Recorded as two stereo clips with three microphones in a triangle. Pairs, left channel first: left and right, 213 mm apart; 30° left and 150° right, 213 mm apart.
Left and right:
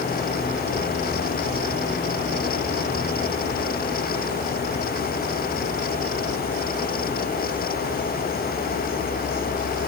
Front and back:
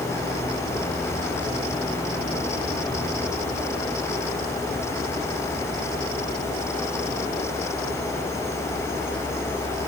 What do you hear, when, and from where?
Only background noise.